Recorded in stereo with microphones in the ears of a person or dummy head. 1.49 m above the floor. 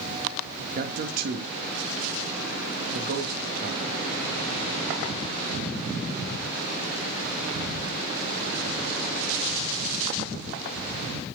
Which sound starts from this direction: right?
A man speaking, at 0.8 s.